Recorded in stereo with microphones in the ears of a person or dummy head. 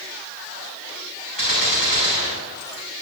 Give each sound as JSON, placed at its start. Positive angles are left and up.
{"t": 1.4, "sound": "a gunshot", "side_deg": 35, "distance_m": 5.5}